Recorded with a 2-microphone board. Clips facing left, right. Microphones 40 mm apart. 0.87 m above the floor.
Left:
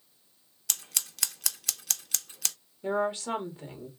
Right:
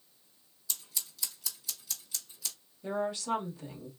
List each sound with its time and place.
0.7 s scissors: 75° left (ahead or behind), 0.5 m
2.8 s a woman speaking: 35° left (ahead or behind), 1.9 m